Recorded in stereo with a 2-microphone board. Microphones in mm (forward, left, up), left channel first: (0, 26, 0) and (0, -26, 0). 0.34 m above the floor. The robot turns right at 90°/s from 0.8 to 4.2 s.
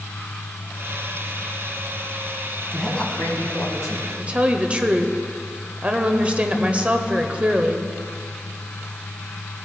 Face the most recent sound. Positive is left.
turn(degrees=-25)  # may be behind; listen again after turning